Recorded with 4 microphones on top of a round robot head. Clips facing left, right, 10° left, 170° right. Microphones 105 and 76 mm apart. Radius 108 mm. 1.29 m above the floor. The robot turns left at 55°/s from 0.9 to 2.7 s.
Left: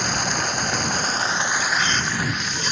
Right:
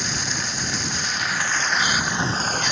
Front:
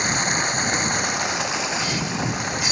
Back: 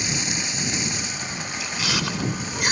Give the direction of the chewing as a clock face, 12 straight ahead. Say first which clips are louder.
Even, front 2 dB; 5 o'clock.